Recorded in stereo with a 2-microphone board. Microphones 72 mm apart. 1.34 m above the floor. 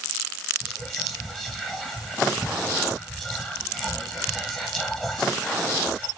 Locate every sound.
0.6 s whispering: 10° left (ahead or behind), 1.3 m